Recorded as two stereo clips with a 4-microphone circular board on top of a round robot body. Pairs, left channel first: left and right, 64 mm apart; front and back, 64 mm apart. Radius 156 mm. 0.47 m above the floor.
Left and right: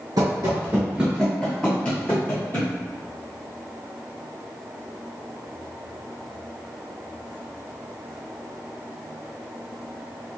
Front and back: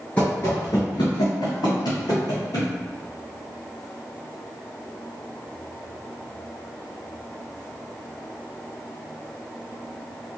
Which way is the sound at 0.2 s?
75° right.